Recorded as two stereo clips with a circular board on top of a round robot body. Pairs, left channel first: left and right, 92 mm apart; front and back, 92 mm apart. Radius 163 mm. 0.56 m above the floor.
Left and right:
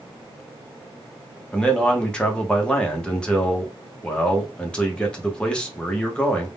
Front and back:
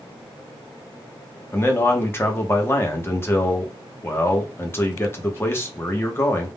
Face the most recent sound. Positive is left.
turn(degrees=25)